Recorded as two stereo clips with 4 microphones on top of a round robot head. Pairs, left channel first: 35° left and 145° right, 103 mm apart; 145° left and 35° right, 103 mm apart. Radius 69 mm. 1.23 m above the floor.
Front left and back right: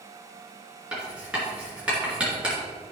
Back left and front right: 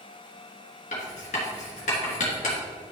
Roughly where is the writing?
Behind left.